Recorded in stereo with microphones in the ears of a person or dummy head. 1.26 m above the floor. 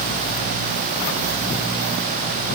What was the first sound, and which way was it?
Only background noise.